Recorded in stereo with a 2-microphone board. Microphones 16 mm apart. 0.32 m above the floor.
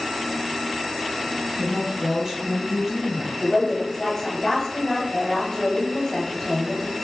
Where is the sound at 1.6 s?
15° right (ahead or behind), 1.3 m.